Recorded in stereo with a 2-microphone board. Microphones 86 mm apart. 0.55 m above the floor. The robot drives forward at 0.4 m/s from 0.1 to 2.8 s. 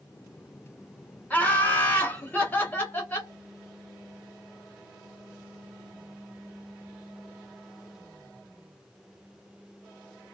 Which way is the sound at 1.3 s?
20° left (ahead or behind).